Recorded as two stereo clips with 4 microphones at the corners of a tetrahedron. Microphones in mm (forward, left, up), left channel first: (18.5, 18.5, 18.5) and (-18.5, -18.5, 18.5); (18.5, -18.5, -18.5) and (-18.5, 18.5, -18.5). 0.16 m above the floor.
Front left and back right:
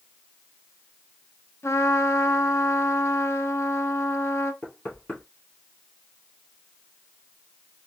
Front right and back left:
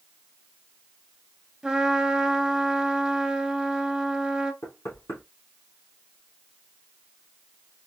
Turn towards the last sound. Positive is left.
turn(degrees=-20)